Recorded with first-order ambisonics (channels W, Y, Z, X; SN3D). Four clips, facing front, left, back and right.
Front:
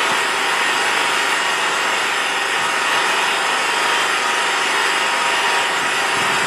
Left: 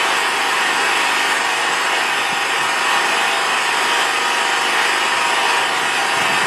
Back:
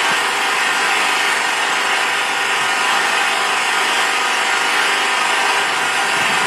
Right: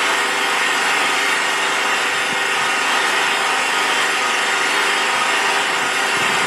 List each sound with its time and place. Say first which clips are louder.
0.0 s an engine running: left 1 dB, back 1 dB; 150° left, 1.7 m